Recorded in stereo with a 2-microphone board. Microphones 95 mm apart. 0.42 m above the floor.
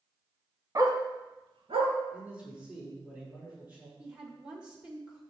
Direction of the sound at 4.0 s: 10° right (ahead or behind).